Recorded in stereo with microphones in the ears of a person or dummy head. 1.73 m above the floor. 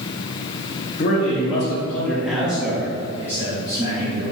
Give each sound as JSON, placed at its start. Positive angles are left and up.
{"t": 1.0, "sound": "a man speaking", "side_deg": 45, "distance_m": 0.9}